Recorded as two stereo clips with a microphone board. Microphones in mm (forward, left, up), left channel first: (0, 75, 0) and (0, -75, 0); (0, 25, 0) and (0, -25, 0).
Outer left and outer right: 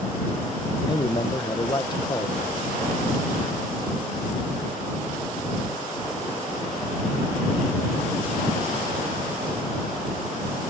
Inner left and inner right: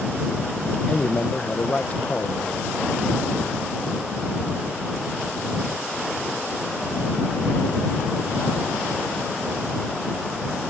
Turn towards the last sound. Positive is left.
turn(degrees=30)  # may be behind; listen again after turning